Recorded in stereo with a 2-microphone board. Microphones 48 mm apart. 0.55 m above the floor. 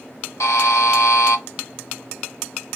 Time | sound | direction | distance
0.4 | a buzzer | 80° left | 0.6 m